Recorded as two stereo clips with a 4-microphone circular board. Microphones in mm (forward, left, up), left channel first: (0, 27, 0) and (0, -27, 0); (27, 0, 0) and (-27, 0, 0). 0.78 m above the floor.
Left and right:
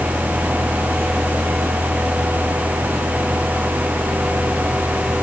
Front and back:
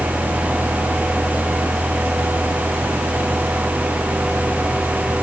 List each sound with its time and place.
Only background noise.